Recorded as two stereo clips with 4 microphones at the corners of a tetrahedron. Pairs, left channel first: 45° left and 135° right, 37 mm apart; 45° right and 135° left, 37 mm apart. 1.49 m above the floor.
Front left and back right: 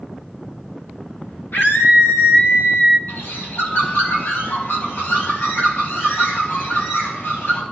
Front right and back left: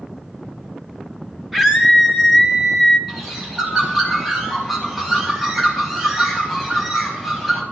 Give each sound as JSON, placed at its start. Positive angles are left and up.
{"t": 1.5, "sound": "a scream", "azimuth_deg": 45, "distance_m": 4.0}
{"t": 3.1, "sound": "a bird", "azimuth_deg": 45, "distance_m": 4.5}